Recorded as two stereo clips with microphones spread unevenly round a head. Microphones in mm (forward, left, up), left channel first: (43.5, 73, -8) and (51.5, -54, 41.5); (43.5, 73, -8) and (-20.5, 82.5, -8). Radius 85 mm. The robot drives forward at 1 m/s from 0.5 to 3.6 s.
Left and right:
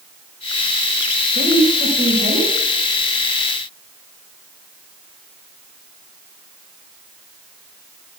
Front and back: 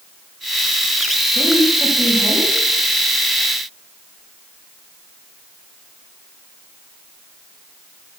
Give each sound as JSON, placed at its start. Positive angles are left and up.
{"t": 1.4, "sound": "a woman speaking", "azimuth_deg": -125, "distance_m": 5.5}